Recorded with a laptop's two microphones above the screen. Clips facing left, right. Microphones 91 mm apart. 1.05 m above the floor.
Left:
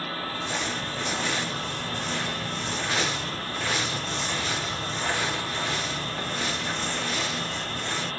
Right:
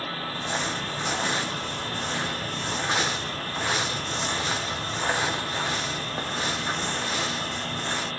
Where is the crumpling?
25° right (ahead or behind), 0.7 m.